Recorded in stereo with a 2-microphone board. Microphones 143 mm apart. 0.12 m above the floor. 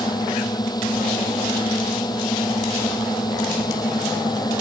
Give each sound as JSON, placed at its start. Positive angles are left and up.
{"t": 0.0, "sound": "a drone", "side_deg": 25}